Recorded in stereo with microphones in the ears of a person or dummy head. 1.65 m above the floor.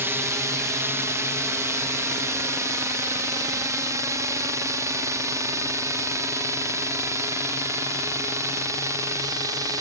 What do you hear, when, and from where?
0.0 s a drone: 10° right (ahead or behind); by 9.8 s 20° right (ahead or behind)